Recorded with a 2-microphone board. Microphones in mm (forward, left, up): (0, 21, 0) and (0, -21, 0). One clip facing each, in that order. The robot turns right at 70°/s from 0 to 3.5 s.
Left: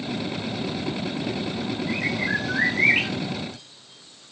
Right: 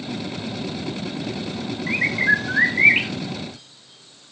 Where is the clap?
No clap in this recording.